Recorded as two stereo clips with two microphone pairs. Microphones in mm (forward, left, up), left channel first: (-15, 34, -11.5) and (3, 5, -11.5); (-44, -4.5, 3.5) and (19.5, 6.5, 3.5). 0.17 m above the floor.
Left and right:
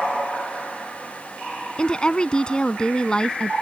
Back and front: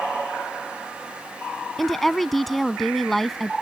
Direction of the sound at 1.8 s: 105° left.